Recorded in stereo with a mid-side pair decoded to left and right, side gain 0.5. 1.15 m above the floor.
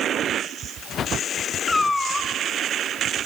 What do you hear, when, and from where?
1.7 s a cat meowing: 15° left, 1.7 m